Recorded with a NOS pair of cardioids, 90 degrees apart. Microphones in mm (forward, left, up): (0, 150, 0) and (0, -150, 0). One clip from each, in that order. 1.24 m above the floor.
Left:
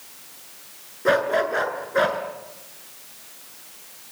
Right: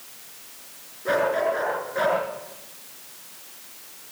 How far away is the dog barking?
About 7.5 m.